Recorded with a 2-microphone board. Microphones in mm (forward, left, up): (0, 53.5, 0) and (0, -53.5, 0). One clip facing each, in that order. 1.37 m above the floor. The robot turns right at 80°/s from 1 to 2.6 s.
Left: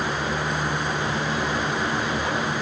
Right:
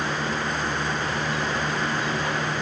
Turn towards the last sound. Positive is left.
No sound to turn to.